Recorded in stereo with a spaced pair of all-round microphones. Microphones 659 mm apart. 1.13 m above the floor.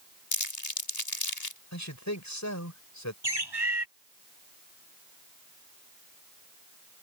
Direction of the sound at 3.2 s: 40° right (ahead or behind).